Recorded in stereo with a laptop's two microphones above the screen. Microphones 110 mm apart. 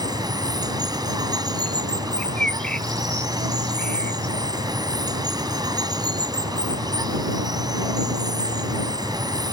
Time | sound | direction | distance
0.0 | running water | 35° right (ahead or behind) | ?
2.2 | a bird | 10° left (ahead or behind) | ?